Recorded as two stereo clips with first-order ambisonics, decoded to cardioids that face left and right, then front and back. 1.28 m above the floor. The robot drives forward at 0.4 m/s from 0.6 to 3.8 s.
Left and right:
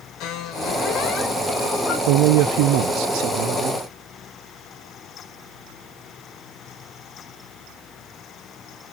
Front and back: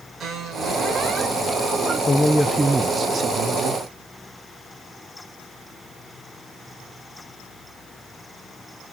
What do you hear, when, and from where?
0.2 s a squeak: 120° left, 2.5 m; by 2.0 s 135° left, 2.5 m
2.1 s a man speaking: 75° right, 0.7 m; by 3.8 s 135° right, 0.8 m